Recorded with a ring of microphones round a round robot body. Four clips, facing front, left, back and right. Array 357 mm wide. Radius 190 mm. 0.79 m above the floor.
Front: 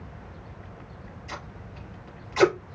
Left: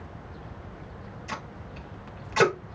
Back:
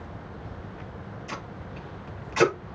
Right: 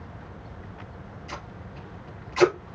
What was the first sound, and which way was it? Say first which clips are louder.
Tape being pulled: left 3 dB, back 1 dB; 115° left.